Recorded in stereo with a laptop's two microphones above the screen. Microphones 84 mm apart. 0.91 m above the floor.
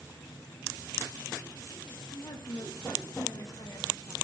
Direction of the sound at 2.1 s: 55° left (ahead or behind).